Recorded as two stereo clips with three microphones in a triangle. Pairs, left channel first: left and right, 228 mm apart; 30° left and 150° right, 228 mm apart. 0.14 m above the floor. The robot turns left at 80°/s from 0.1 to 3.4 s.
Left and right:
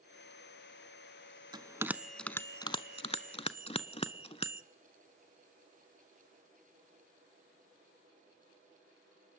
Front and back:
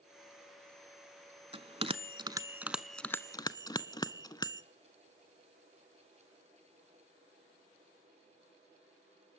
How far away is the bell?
About 0.7 m.